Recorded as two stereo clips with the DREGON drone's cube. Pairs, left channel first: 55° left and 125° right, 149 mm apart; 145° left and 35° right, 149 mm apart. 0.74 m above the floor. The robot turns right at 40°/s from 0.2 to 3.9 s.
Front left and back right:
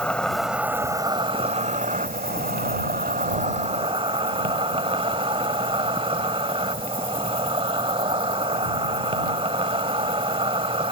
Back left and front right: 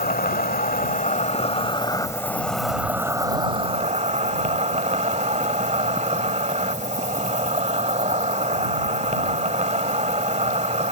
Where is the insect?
140° left; by 10.9 s 75° right.